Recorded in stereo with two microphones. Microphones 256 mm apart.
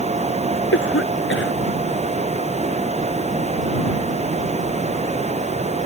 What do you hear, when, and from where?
0.7 s a cough: 50° left (ahead or behind)